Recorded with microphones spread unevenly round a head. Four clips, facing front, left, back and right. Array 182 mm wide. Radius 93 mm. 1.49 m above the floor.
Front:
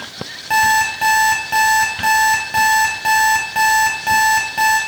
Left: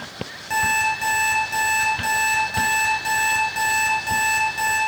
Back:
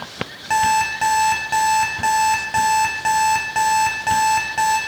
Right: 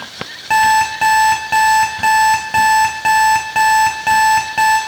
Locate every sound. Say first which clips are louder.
0.5 s an alarm clock: right 10 dB, front 2 dB; 75° right, 4.5 m